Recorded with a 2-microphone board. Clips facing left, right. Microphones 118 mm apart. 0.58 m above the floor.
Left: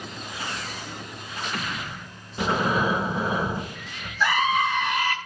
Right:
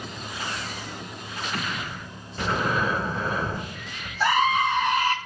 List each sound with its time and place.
2.4 s breathing: 15° left (ahead or behind), 0.5 m
4.2 s a scream: 40° right (ahead or behind), 1.0 m